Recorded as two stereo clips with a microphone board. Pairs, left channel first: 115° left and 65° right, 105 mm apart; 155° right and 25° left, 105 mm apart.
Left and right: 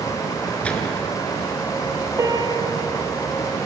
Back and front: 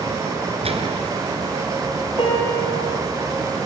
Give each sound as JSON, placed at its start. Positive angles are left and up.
{"t": 0.6, "sound": "a gunshot", "azimuth_deg": 35, "distance_m": 3.0}
{"t": 2.2, "sound": "a piano", "azimuth_deg": -125, "distance_m": 5.5}